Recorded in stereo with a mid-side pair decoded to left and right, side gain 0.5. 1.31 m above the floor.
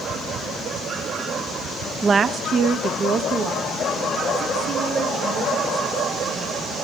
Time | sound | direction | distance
2.0 | a woman speaking | 30° right | 0.5 m